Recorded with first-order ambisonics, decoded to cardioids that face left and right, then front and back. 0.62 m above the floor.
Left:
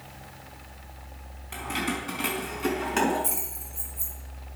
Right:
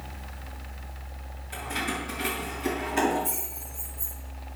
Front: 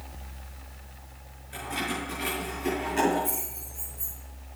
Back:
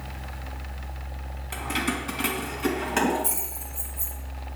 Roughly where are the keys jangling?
Behind left.